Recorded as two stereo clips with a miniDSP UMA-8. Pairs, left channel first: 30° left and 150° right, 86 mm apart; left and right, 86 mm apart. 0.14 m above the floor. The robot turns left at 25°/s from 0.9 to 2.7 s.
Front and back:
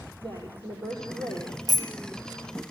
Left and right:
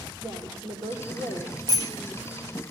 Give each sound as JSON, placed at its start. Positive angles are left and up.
{"t": 0.2, "sound": "a woman speaking", "azimuth_deg": -110, "distance_m": 4.5}
{"t": 1.7, "sound": "a bicycle bell", "azimuth_deg": -115, "distance_m": 2.5}